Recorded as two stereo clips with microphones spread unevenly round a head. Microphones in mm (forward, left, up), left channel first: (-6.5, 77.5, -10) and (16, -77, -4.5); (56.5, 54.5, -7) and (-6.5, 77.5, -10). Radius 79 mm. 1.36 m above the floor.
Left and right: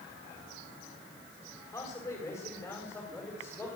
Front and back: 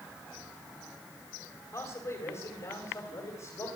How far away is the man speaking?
About 7.5 m.